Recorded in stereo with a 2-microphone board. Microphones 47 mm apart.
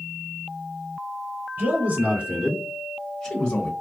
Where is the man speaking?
35° right (ahead or behind), 3 m; by 3.7 s 35° left (ahead or behind), 1.4 m.